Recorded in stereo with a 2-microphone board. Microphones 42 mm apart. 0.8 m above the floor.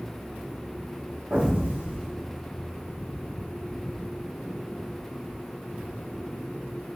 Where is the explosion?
45° right (ahead or behind), 1.6 m.